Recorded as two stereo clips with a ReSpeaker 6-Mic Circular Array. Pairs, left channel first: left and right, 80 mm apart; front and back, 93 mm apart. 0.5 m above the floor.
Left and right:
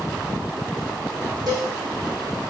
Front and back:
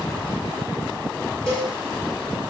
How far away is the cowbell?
About 1.9 m.